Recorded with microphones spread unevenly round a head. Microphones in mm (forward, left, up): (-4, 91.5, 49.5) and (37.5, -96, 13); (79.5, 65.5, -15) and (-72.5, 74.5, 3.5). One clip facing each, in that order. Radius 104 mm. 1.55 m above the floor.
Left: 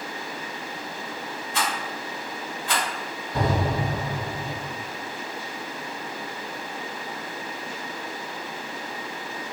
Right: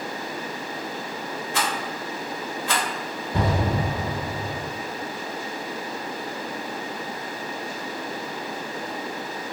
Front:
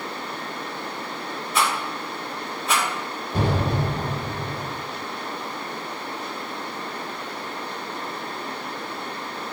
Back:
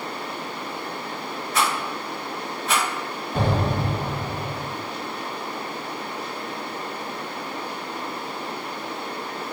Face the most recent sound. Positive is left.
turn(degrees=-80)